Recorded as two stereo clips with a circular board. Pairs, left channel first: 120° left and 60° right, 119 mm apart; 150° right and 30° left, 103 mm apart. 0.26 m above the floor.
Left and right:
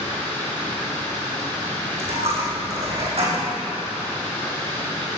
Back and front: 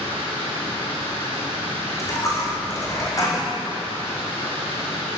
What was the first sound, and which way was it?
Running water, 170° right.